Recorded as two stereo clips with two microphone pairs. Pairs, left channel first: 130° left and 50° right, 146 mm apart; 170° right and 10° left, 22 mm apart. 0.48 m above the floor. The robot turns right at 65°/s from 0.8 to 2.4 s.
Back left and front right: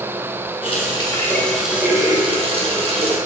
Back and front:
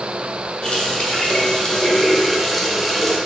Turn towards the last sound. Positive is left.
turn(degrees=-80)